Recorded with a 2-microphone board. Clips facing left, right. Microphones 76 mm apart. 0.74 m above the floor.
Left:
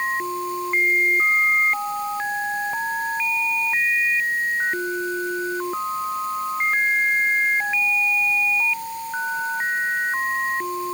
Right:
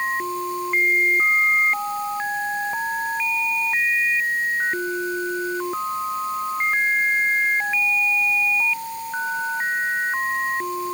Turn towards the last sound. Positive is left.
No sound to turn to.